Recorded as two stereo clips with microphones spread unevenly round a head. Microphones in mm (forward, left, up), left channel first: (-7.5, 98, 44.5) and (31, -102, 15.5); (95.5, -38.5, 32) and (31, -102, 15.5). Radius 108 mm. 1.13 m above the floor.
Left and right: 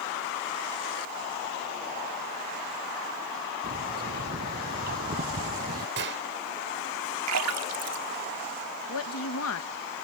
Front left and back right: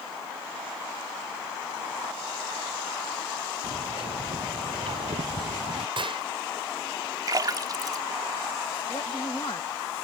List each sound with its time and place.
3.6 s a bird: 125° right
6.0 s a gunshot: 115° right
7.3 s a splash: 90° right
8.9 s a woman speaking: 110° left